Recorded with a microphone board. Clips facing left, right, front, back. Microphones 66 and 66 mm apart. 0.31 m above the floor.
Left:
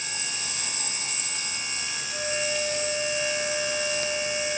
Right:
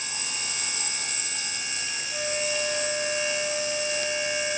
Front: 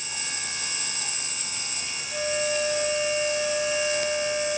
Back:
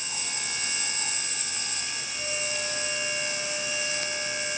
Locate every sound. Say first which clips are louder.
2.1 s a flute: even, front 9 dB; 10° right, 4.5 m